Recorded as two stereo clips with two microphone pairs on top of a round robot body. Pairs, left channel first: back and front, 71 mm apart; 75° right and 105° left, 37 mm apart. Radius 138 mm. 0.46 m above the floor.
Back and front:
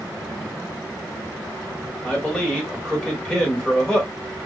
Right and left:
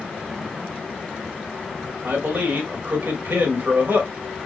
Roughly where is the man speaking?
Left.